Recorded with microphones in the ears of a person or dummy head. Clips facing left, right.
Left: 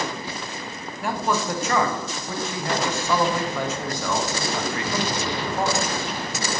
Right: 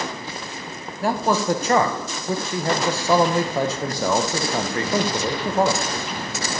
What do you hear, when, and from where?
1.0 s a man speaking: 25° right (ahead or behind), 0.5 m